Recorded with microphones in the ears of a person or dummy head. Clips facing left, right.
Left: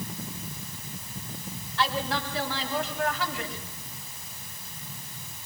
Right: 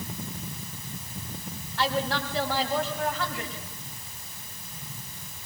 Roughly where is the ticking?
No ticking in this recording.